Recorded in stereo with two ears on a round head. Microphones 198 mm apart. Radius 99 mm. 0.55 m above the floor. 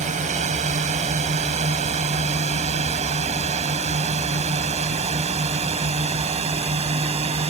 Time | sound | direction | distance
0.0 | a drone | 35° right (ahead or behind) | ?